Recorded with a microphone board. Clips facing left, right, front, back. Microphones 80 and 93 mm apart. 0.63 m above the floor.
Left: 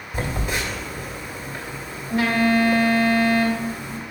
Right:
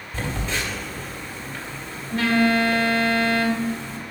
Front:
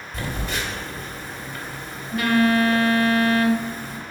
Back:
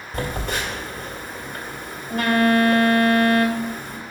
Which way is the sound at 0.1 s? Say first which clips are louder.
Left 2 dB, back 3 dB; 165° left.